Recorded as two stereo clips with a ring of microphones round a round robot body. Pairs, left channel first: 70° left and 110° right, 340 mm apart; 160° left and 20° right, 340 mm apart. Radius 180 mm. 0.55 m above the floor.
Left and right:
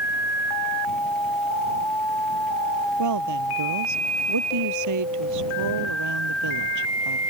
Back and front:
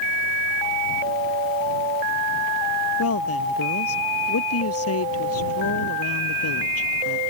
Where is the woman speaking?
150° right.